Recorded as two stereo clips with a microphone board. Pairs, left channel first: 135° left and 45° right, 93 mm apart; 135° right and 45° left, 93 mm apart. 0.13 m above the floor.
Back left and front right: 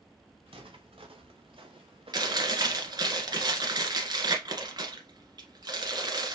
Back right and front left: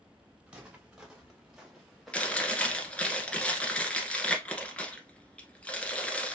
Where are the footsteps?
35° right, 2 m; by 3.1 s 60° right, 1.0 m.